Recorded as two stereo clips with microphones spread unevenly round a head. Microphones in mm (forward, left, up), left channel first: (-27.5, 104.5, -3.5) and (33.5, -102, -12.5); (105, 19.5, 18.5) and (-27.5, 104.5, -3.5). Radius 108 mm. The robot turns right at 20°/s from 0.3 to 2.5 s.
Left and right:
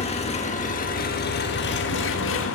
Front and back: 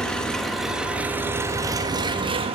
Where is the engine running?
50° left, 1.9 m; by 2.5 s 90° left, 1.9 m.